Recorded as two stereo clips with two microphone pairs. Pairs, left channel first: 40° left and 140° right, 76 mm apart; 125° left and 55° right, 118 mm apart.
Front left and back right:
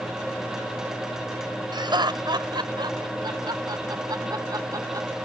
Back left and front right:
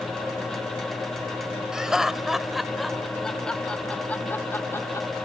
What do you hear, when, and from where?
1.7 s laughter: 140° right; by 5.1 s 175° right